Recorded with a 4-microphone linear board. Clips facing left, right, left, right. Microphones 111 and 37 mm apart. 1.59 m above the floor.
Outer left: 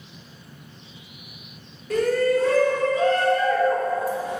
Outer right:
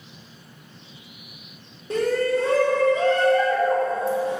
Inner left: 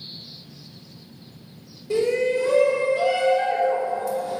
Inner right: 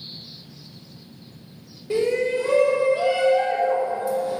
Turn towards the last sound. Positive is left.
turn(degrees=-25)  # may be behind; listen again after turning